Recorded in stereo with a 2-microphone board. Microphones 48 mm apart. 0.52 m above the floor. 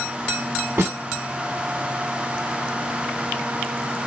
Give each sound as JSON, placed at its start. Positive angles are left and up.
{"t": 0.8, "sound": "a snare drum", "side_deg": -60, "distance_m": 1.8}